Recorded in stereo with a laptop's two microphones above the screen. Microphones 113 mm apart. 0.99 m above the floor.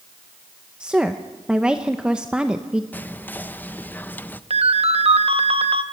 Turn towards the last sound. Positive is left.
turn(degrees=-60)  # may be behind; listen again after turning